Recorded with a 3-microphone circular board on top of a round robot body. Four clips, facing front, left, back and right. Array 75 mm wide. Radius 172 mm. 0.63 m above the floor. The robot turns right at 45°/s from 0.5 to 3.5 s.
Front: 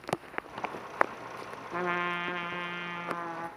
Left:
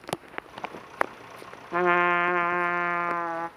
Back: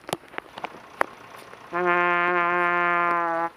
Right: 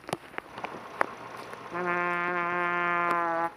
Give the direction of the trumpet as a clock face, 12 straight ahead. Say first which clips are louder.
Left 7 dB, back 10 dB; 8 o'clock.